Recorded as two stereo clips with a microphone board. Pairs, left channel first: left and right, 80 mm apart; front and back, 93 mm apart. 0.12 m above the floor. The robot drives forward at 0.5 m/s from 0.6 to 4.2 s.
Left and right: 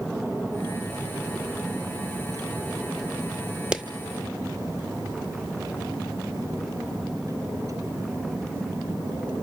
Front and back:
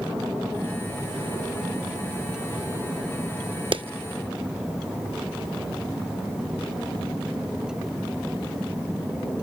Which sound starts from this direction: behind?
A clap, at 3.7 s.